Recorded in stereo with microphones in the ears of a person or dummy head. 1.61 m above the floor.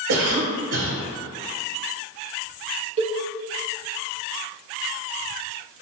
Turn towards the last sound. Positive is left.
turn(degrees=-30)  # may be behind; listen again after turning